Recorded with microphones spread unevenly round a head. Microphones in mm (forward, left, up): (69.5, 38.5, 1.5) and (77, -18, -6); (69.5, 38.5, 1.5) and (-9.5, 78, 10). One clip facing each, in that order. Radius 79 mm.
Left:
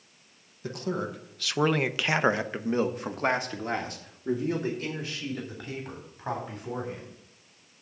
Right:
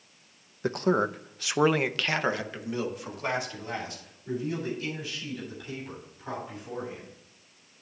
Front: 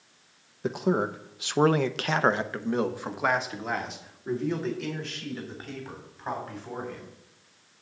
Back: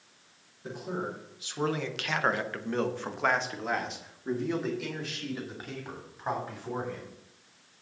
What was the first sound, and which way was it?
A man speaking, 55° right.